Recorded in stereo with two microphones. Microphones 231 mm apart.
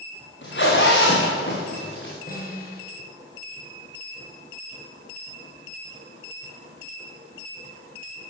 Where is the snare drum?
40° left (ahead or behind), 7 m.